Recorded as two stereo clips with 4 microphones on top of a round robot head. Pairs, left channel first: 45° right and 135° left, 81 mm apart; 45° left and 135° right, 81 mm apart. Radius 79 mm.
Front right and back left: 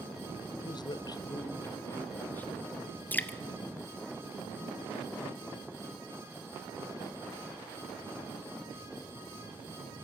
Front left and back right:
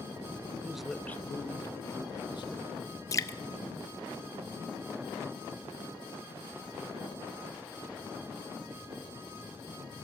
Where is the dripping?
15° left, 0.6 m.